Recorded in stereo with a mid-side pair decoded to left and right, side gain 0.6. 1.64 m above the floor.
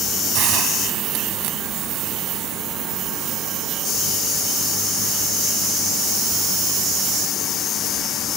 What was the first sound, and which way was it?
A hiss, 70° right.